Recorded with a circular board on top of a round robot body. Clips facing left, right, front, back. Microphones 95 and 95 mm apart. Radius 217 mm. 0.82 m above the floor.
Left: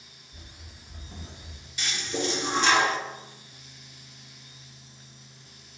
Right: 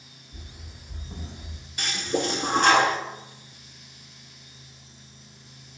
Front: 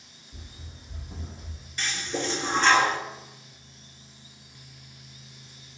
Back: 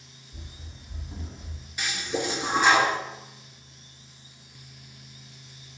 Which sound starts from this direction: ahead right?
Running footsteps, at 0.3 s.